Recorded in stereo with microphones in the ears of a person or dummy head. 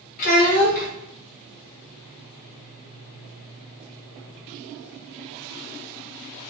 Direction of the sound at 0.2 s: 55° left (ahead or behind).